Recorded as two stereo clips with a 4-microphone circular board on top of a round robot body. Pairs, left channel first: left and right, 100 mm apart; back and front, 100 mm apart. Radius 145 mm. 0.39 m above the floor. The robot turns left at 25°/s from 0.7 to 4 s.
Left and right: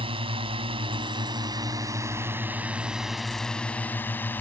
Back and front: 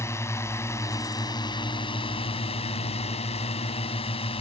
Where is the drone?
115° right; by 4.4 s 160° left.